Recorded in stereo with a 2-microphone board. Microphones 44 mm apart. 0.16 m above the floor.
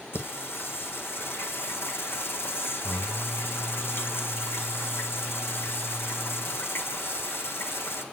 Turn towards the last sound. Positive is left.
turn(degrees=65)  # may be behind; listen again after turning